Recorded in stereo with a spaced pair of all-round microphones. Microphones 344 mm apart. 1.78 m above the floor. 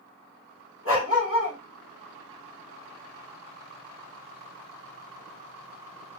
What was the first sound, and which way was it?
A dog barking, 35° left (ahead or behind).